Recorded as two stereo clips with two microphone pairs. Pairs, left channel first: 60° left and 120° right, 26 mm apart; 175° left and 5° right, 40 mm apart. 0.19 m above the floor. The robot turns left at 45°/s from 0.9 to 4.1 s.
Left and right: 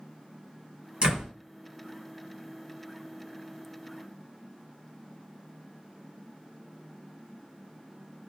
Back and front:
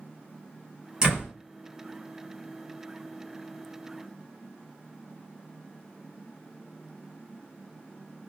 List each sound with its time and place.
1.0 s a door slam: 65° right, 2.5 m; by 1.3 s 80° right, 2.5 m